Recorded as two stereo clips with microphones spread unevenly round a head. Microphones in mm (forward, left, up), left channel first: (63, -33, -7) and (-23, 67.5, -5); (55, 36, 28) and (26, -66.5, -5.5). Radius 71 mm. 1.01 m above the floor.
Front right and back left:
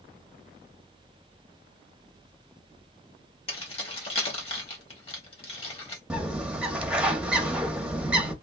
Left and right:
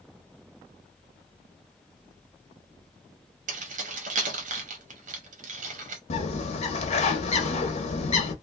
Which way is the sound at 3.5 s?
105° right.